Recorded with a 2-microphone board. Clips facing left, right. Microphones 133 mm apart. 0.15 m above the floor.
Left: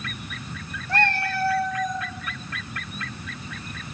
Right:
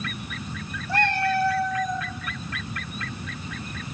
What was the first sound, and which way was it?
A cat meowing, 10° right (ahead or behind).